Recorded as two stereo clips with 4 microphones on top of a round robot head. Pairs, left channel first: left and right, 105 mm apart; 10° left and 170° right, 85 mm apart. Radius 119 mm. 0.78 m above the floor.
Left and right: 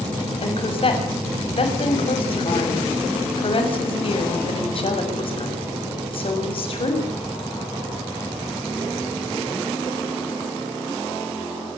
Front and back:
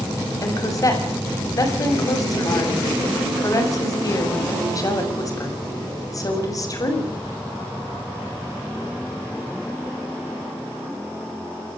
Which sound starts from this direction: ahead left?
A woman speaking, at 0.4 s.